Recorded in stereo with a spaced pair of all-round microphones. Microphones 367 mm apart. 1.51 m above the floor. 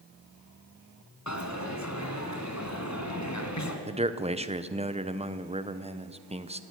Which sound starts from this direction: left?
A dropped coin, at 1.3 s.